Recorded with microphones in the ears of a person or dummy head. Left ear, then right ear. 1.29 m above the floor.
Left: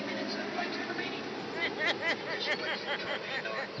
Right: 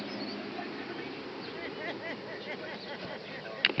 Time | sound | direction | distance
0.0 | an aircraft | 55° left (ahead or behind) | ?
1.4 | laughter | 55° left (ahead or behind) | ?